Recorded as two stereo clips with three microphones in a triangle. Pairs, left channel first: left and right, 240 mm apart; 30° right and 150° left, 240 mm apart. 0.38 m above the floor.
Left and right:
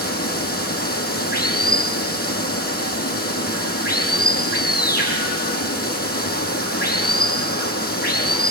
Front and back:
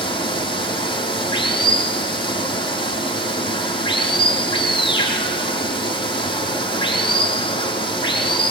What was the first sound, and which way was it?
Running water, 40° left.